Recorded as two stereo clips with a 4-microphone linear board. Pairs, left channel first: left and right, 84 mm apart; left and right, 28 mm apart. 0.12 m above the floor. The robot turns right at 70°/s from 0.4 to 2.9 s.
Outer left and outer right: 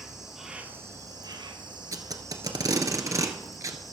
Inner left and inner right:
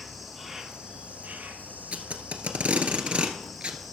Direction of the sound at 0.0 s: 175° right.